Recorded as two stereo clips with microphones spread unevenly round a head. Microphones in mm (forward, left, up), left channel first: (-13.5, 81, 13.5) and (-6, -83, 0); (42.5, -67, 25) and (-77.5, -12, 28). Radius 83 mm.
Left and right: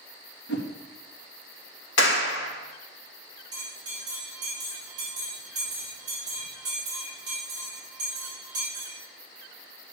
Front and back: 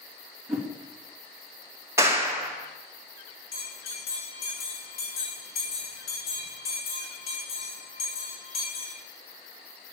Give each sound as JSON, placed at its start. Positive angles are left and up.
{"t": 0.5, "sound": "a whoosh", "azimuth_deg": 65, "distance_m": 2.0}
{"t": 2.0, "sound": "a clap", "azimuth_deg": 80, "distance_m": 2.0}
{"t": 3.5, "sound": "a bell", "azimuth_deg": -20, "distance_m": 7.0}